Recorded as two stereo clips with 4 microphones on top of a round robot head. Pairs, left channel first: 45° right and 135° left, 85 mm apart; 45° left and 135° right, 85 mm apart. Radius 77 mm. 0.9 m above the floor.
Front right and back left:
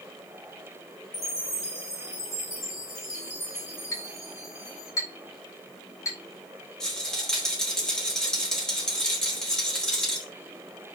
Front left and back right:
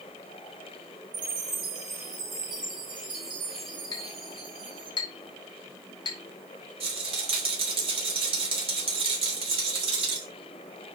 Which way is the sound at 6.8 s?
130° right.